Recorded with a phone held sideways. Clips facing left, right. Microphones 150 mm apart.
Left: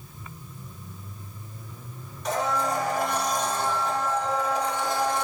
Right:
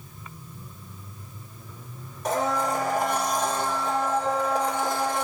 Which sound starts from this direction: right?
A blender, at 2.2 s.